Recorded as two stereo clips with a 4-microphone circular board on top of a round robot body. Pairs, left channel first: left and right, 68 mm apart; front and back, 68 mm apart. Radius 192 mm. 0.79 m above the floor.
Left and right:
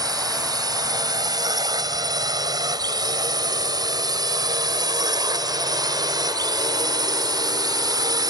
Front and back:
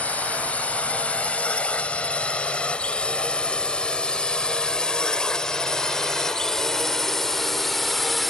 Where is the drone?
70° right; by 8.3 s 90° right.